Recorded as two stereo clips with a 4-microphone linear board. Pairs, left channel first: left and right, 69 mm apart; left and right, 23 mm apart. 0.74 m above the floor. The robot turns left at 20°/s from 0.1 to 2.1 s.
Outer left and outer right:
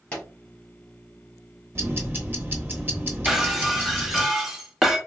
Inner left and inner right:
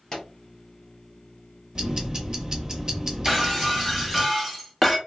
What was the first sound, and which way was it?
A pop, 15° left (ahead or behind).